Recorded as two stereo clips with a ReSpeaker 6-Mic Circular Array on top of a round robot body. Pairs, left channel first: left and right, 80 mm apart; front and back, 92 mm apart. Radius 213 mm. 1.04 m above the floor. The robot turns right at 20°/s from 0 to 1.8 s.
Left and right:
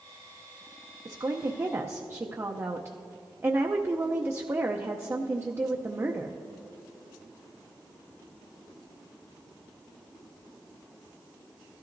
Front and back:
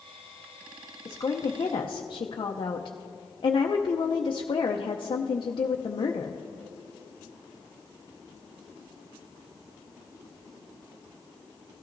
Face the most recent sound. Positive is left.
turn(degrees=-35)